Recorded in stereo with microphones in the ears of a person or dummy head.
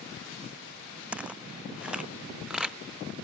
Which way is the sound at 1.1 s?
5° right (ahead or behind).